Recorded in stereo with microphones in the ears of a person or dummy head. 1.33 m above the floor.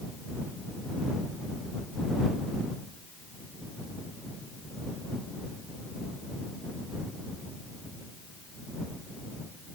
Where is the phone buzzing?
No phone buzzing in this recording.